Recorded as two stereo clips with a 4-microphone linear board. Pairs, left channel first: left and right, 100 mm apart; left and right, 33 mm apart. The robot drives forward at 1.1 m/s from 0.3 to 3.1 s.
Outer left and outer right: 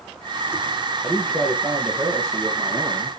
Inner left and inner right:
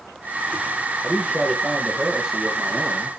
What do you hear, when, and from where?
1.0 s a man speaking: 5° right (ahead or behind), 2.5 m